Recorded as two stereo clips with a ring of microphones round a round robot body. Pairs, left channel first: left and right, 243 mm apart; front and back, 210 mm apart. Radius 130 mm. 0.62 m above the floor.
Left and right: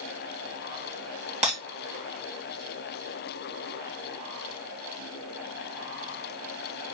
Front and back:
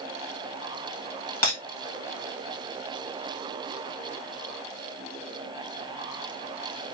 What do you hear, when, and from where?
1.4 s breaking glass: 25° right, 2.5 m